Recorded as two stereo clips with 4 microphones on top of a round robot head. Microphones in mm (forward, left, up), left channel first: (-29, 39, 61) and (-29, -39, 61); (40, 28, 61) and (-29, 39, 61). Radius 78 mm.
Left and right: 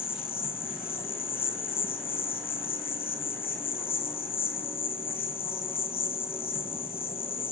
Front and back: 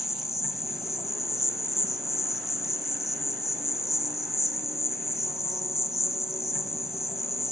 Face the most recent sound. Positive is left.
turn(degrees=85)